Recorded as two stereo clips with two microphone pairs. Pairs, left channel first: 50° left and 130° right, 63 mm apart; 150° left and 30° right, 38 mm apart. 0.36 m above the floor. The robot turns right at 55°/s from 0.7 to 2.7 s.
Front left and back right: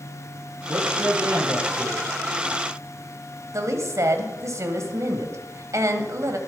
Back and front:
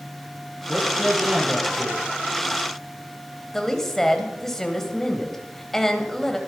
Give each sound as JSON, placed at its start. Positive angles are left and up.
{"t": 0.7, "sound": "a man speaking", "azimuth_deg": -145, "distance_m": 10.0}
{"t": 3.5, "sound": "a woman speaking", "azimuth_deg": -140, "distance_m": 2.5}